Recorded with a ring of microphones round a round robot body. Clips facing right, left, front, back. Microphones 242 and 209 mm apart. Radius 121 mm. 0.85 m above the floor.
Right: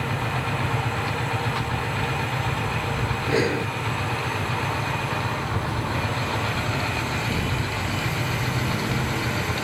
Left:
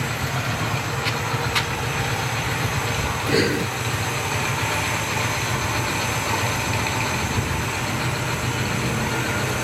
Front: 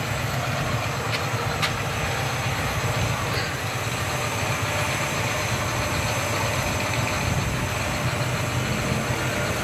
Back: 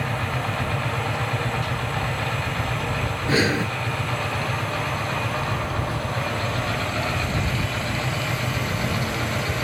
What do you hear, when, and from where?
3.3 s breathing: 160° left